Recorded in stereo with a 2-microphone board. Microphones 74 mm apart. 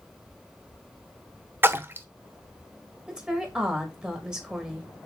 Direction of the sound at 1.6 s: 30° right (ahead or behind).